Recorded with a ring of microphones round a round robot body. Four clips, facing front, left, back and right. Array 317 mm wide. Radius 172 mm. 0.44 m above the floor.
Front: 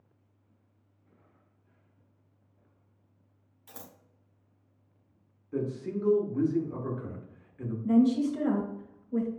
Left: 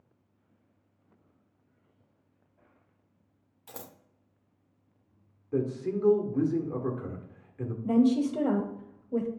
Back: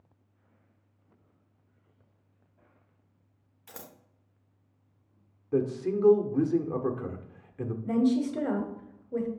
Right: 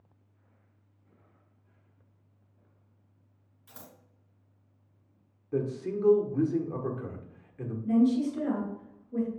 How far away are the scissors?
About 0.8 m.